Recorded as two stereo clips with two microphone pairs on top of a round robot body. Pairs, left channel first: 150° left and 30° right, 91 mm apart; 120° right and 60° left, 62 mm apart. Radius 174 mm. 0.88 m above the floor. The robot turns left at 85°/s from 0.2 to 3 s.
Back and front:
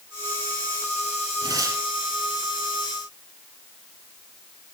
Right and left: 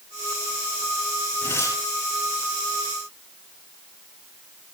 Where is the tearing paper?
60° right, 5 m; by 1.8 s 100° right, 5 m.